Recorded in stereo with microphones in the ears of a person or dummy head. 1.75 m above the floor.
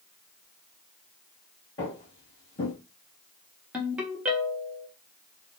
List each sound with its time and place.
1.8 s footsteps: 15° left (ahead or behind), 1.8 m
3.7 s a ringtone: 5° right (ahead or behind), 0.9 m